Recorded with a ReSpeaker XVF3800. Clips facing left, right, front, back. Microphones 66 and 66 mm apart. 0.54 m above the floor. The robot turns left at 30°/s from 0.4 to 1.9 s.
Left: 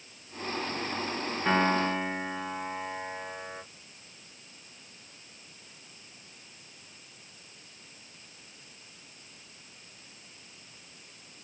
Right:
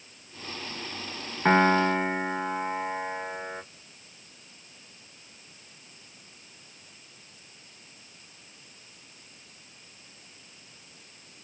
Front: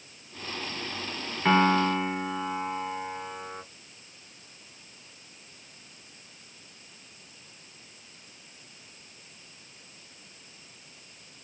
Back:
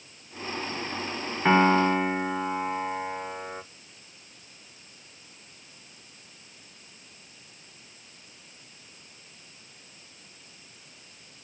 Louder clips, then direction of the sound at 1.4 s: Right 5 dB, back 2 dB; 105° right.